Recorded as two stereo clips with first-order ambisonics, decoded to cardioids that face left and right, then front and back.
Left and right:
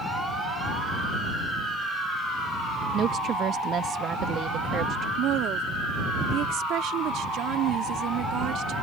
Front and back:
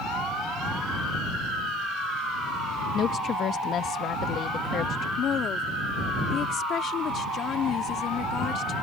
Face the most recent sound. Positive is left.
turn(degrees=-55)